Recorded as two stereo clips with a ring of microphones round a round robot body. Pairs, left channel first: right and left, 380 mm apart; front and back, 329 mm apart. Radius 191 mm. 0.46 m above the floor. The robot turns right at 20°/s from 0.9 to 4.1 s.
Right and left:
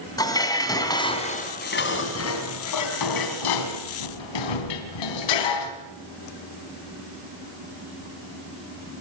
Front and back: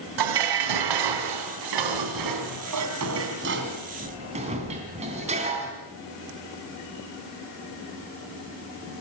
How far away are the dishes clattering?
About 3 m.